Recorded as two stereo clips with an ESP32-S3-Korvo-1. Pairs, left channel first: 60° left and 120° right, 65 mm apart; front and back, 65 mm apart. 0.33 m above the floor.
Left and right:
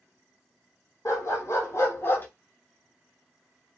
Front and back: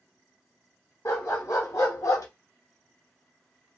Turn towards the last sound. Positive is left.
turn(degrees=5)